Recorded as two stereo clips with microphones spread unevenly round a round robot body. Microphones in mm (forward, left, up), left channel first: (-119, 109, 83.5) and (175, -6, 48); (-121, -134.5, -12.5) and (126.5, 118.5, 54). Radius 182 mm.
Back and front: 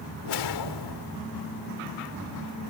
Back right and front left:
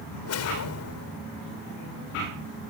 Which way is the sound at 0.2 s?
175° left.